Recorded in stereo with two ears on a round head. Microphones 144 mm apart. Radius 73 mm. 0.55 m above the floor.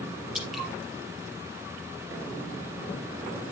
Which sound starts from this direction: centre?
Dripping, at 0.3 s.